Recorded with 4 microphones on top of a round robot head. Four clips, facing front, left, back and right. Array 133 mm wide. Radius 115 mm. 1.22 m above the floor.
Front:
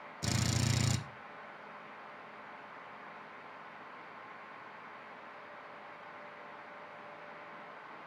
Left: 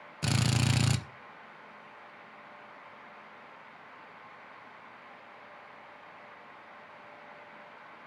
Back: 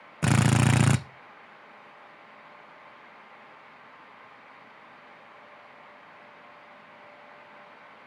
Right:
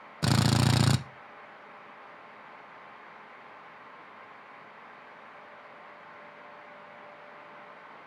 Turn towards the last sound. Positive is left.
turn(degrees=-150)